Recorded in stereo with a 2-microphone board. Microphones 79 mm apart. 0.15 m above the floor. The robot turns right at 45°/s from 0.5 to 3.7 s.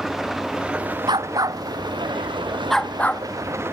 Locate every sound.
0.0 s an engine running: 175° right; by 3.7 s 30° right
1.1 s a dog barking: 70° right (ahead or behind); by 3.2 s 25° left (ahead or behind)